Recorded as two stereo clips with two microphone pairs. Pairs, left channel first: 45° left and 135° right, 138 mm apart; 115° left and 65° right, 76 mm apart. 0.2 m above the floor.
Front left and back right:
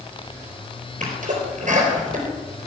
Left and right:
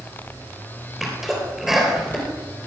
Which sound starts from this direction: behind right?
A sneeze, at 1.0 s.